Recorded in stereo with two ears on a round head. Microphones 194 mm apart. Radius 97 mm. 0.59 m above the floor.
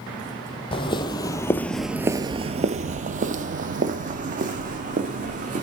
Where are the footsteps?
25° left (ahead or behind), 1.1 m; by 5.6 s 40° right (ahead or behind), 2.5 m.